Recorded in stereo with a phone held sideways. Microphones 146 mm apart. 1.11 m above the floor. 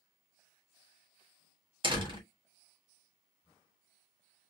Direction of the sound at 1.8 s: 35° right (ahead or behind).